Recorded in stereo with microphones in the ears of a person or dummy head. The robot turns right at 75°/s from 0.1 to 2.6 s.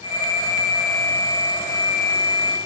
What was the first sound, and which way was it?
Only background noise.